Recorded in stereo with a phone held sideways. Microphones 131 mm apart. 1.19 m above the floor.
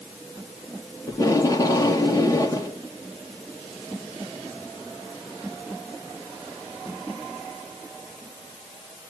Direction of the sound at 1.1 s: 25° left (ahead or behind).